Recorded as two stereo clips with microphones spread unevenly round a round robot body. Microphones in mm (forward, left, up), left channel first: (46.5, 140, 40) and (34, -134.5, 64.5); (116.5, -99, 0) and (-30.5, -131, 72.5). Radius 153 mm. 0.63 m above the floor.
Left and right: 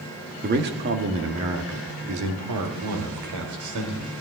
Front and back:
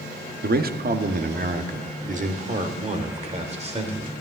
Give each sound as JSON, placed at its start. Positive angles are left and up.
{"t": 0.4, "sound": "a man speaking", "azimuth_deg": -145, "distance_m": 1.1}